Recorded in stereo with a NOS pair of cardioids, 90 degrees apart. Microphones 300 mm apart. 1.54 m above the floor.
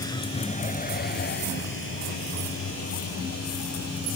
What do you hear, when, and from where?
0.0 s a vehicle: 10° left; by 4.2 s 55° left